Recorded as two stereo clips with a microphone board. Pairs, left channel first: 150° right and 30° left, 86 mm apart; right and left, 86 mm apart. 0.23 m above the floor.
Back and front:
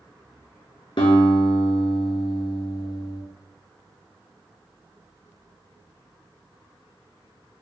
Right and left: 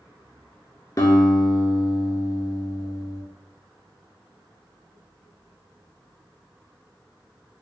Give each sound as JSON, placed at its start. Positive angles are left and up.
{"t": 1.0, "sound": "a guitar", "azimuth_deg": -140, "distance_m": 0.7}